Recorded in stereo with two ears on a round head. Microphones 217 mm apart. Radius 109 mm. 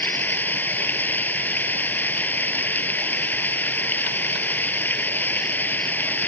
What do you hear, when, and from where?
0.0 s running water: 10° left (ahead or behind)